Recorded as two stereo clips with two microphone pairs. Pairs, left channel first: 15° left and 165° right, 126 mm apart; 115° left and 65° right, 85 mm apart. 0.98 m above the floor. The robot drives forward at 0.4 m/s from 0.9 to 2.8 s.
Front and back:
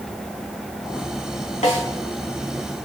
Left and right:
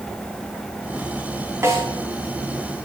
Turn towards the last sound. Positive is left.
turn(degrees=-5)